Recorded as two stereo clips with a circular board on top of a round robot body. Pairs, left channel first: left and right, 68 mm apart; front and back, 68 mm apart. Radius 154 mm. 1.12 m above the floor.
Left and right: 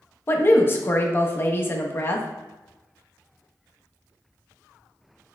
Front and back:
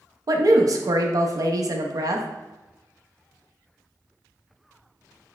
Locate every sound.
0.3 s a woman speaking: 145° left, 0.5 m